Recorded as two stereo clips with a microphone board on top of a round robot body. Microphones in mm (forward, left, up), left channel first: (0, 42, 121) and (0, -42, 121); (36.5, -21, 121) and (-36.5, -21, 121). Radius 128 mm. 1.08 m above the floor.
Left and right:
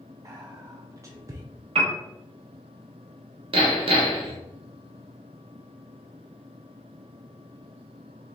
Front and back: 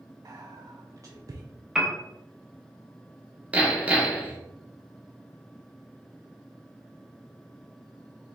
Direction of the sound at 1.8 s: 100° right.